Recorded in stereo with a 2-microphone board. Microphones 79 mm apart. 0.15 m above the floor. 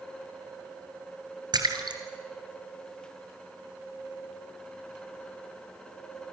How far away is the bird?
No bird in this recording.